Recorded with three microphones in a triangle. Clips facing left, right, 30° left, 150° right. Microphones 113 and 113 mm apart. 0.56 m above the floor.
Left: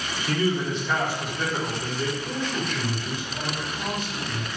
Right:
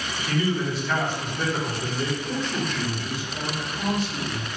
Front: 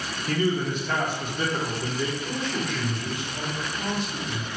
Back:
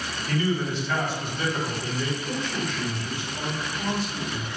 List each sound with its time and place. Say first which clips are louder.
0.3 s a man speaking: left 1 dB, front 1 dB; 50° left, 1.0 m; by 2.1 s 25° right, 1.0 m
2.2 s a man speaking: right 1 dB, even; 30° right, 1.4 m